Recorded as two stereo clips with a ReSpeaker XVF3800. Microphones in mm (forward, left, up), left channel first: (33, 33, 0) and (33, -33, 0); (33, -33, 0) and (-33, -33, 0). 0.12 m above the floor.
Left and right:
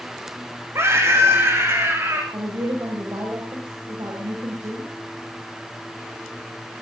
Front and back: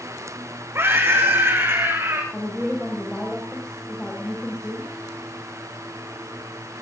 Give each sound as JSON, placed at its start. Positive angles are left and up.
{"t": 0.8, "sound": "a scream", "azimuth_deg": -135, "distance_m": 6.5}
{"t": 2.3, "sound": "a woman speaking", "azimuth_deg": -75, "distance_m": 8.0}